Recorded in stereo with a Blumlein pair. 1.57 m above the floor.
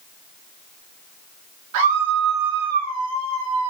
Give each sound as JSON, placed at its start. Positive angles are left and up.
{"t": 1.7, "sound": "a scream", "azimuth_deg": -45, "distance_m": 4.5}